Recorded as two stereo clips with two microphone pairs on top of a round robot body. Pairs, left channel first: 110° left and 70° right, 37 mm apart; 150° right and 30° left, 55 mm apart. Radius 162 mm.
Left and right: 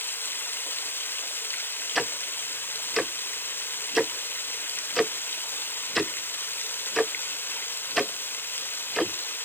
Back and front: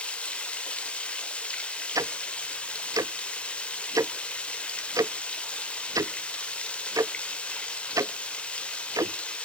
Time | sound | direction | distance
0.0 | running water | 140° left | 1.1 m
1.9 | ticking | 30° left | 0.6 m